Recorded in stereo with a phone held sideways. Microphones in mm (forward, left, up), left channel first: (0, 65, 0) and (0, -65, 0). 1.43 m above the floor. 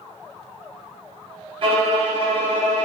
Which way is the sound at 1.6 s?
45° right (ahead or behind).